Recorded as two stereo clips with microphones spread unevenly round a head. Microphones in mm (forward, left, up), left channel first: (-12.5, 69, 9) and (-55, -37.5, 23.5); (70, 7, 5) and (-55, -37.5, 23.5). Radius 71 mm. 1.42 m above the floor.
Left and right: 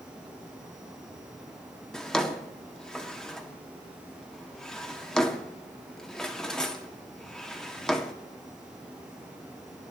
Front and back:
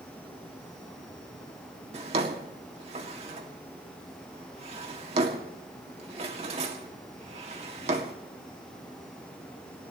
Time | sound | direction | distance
1.9 | a drawer | 155° left | 2 m